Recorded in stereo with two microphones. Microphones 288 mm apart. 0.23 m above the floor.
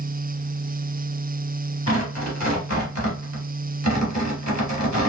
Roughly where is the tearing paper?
Left.